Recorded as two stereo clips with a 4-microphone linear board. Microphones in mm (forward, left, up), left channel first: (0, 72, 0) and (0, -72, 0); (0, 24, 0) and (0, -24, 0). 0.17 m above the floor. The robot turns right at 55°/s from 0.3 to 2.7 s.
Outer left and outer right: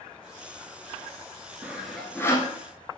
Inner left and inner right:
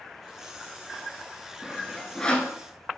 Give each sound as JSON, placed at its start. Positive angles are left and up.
{"t": 1.6, "sound": "sawing", "side_deg": -15, "distance_m": 0.6}